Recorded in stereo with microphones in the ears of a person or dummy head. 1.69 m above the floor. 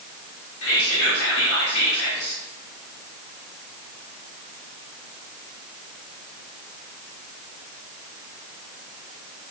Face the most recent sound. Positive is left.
turn(degrees=80)